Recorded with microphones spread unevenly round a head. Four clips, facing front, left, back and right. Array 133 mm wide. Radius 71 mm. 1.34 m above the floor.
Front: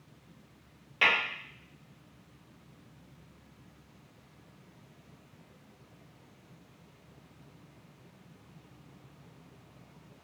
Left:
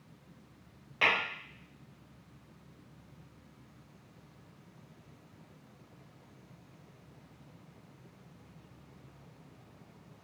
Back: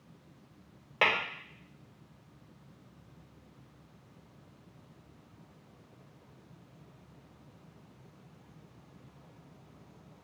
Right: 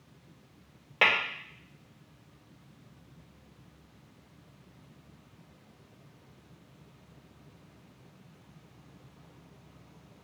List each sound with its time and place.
1.0 s tapping: 110° right, 2.5 m